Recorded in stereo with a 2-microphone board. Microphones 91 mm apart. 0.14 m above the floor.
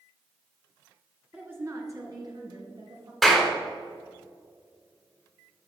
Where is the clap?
Centre (ahead or behind), 1.4 m.